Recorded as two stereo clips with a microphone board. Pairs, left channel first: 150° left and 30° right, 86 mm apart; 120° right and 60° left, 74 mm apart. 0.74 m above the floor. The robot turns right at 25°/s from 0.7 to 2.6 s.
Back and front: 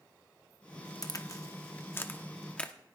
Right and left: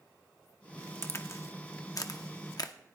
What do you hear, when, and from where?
1.0 s a crack: 175° right, 0.8 m; by 2.7 s 135° right, 0.8 m